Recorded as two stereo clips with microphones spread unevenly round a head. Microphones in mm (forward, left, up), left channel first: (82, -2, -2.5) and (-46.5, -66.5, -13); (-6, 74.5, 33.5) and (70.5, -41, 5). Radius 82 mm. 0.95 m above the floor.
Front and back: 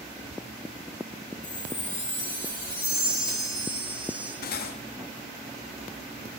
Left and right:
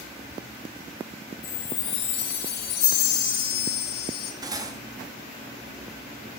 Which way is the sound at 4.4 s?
10° left.